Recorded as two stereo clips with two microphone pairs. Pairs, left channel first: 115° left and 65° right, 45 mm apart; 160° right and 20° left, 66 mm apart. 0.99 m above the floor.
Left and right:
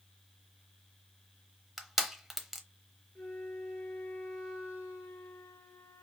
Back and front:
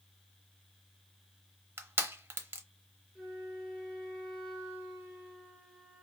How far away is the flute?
About 3 m.